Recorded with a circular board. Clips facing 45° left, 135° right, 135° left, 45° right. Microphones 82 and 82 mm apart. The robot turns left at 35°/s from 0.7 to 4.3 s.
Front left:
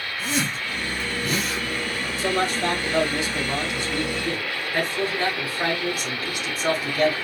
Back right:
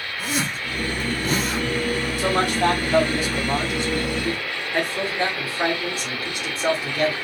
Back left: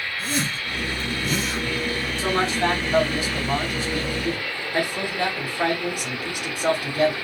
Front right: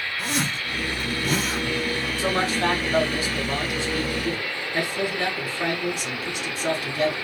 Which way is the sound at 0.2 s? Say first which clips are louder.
Even, even; 60° right.